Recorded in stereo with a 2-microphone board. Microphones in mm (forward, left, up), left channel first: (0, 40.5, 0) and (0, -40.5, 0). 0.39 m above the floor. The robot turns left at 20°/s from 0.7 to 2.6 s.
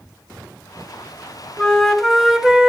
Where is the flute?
10° left (ahead or behind), 1.1 m; by 2.7 s 10° right (ahead or behind), 1.1 m.